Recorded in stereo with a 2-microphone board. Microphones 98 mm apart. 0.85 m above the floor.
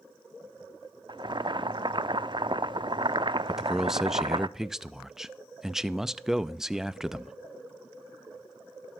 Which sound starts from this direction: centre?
A man speaking, at 3.5 s.